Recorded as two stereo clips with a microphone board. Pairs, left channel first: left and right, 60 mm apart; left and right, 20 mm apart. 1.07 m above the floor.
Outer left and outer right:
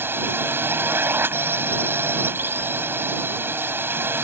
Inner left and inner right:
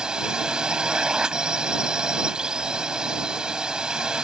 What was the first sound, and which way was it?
A drone, 40° right (ahead or behind).